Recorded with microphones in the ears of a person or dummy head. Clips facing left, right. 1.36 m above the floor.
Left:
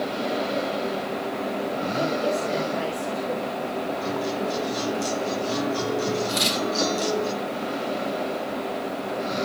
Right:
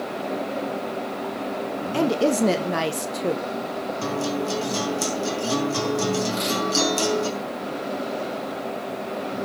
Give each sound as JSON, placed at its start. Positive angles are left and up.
{"t": 1.9, "sound": "a woman speaking", "side_deg": -85, "distance_m": 1.0}
{"t": 4.0, "sound": "a guitar", "side_deg": -60, "distance_m": 3.0}
{"t": 6.3, "sound": "tearing paper", "side_deg": 75, "distance_m": 6.0}